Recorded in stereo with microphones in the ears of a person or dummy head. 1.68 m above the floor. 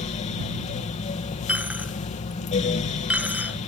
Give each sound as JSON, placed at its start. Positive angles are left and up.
{"t": 0.0, "sound": "a fan", "side_deg": 35}
{"t": 1.5, "sound": "a dropped coin", "side_deg": -5}